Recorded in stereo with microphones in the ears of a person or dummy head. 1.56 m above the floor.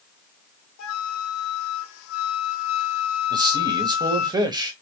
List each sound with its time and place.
0.8 s a flute: 85° left, 1.1 m
3.3 s a man speaking: 20° right (ahead or behind), 1.0 m